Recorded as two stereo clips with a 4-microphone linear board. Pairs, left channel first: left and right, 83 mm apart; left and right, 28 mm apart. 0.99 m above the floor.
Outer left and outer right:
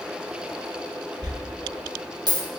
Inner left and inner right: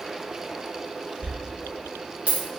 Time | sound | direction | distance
1.2 | a dropped coin | 55° right (ahead or behind) | 0.6 m